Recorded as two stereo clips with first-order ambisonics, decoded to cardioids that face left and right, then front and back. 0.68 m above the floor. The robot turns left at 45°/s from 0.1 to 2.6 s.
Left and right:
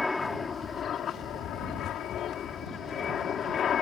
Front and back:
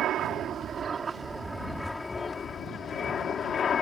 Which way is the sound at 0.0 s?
165° left.